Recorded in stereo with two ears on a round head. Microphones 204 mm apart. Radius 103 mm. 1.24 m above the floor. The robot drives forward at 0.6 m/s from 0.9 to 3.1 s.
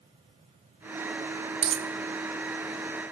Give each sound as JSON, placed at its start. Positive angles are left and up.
{"t": 1.6, "sound": "a dropped coin", "side_deg": -25, "distance_m": 0.9}